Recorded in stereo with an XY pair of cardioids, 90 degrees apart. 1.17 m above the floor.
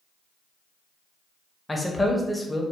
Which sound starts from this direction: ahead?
A man speaking, at 1.7 s.